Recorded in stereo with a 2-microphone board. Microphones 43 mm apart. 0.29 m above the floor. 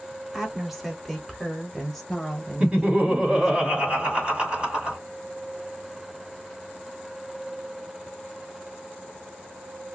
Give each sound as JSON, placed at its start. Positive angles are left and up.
{"t": 0.3, "sound": "a woman speaking", "side_deg": -5, "distance_m": 1.2}
{"t": 2.6, "sound": "laughter", "side_deg": -25, "distance_m": 2.5}